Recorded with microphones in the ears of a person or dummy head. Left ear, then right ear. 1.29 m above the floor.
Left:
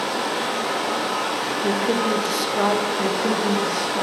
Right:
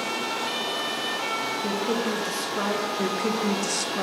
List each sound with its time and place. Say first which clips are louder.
0.0 s running water: left 4 dB; 40° left (ahead or behind), 0.8 m
1.6 s a woman speaking: left 5 dB; 10° left (ahead or behind), 0.6 m
3.0 s a woman speaking: left 4 dB; 65° right (ahead or behind), 0.9 m